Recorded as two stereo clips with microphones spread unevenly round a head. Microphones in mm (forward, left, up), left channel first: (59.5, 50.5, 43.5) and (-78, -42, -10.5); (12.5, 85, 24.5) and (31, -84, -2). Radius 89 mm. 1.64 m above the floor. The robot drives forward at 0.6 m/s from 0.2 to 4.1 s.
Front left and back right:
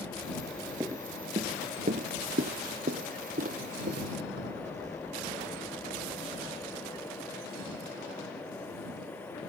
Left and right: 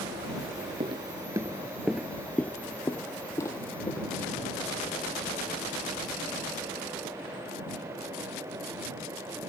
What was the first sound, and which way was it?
Footsteps, 45° right.